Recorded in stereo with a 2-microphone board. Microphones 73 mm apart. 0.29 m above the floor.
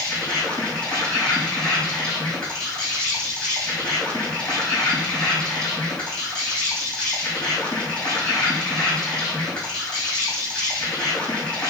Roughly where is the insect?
Centre.